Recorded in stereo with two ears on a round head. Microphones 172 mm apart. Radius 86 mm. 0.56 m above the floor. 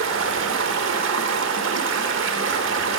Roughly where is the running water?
Right.